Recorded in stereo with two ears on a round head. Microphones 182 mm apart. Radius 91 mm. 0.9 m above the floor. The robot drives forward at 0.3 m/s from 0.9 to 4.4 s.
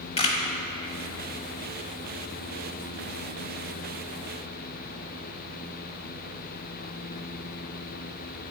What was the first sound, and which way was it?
A camera shutter, 30° left (ahead or behind).